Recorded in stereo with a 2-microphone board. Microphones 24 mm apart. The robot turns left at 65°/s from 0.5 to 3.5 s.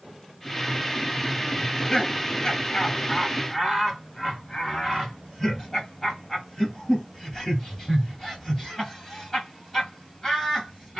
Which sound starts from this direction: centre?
Laughter, at 1.6 s.